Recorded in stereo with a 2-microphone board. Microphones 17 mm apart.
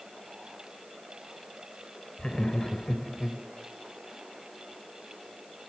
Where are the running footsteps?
I don't hear running footsteps.